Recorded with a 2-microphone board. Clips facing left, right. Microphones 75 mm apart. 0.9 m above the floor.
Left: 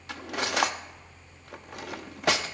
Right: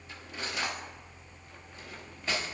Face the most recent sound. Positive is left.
turn(degrees=75)  # may be behind; listen again after turning